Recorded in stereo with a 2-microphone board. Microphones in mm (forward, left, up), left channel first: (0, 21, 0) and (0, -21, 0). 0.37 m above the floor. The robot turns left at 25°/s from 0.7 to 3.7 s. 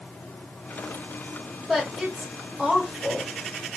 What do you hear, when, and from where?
1.7 s a woman speaking: 5° right (ahead or behind), 1.1 m; by 3.4 s 15° right (ahead or behind), 1.1 m